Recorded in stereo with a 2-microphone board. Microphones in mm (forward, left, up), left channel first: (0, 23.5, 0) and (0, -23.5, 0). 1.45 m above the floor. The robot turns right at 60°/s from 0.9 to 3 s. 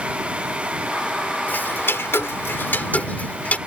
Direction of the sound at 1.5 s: 45° left (ahead or behind).